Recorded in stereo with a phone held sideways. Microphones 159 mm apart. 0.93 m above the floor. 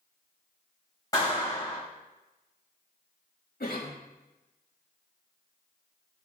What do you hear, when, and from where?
1.1 s a clap: 20° left (ahead or behind), 3 m
3.6 s a cough: 70° left (ahead or behind), 1.8 m